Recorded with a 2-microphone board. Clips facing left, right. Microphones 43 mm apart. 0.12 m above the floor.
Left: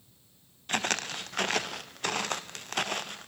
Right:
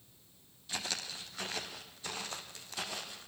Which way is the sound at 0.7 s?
65° left (ahead or behind).